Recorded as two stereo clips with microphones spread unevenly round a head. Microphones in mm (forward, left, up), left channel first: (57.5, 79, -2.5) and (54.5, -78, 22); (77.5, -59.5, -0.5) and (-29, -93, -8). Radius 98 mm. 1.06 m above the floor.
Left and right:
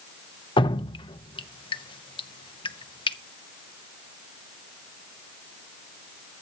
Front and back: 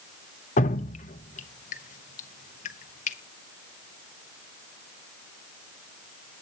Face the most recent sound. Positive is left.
turn(degrees=35)